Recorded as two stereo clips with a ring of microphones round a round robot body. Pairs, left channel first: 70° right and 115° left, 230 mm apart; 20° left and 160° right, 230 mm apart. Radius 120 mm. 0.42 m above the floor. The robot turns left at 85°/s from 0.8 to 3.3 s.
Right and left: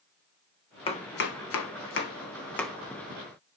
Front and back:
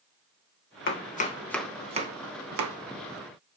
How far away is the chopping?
About 1.6 m.